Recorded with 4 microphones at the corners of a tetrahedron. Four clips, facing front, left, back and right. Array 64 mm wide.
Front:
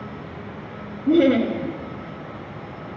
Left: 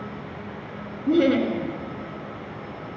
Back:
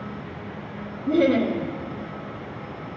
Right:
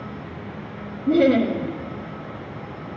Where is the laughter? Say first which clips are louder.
Right 2 dB, front 3 dB; 25° left, 1.4 m.